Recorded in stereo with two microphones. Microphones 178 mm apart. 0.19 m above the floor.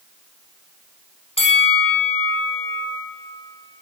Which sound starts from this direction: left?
A bell, at 1.4 s.